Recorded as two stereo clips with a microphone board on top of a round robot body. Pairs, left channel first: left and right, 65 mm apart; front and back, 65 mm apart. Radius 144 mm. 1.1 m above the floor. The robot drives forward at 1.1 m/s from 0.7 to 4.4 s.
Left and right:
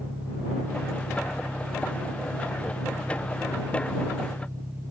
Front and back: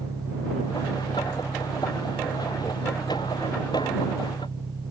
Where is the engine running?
150° right; by 4.9 s 155° right.